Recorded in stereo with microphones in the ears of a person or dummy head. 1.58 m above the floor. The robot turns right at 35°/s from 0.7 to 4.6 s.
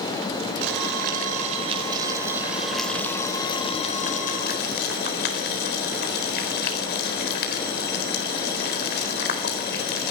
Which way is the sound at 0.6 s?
70° right (ahead or behind).